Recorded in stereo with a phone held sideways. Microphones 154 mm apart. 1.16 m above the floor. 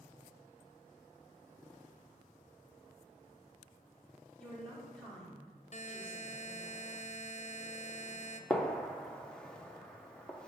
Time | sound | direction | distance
4.4 | a woman speaking | 5° left (ahead or behind) | 3.5 m
5.7 | a buzzer | 50° left (ahead or behind) | 0.5 m
8.5 | a gunshot | 5° left (ahead or behind) | 0.8 m